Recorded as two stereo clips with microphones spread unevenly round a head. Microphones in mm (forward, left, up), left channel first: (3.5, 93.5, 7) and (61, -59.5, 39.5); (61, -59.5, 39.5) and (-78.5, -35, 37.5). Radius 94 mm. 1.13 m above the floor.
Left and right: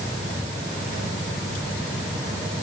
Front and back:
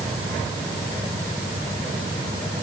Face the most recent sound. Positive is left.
No sound to turn to.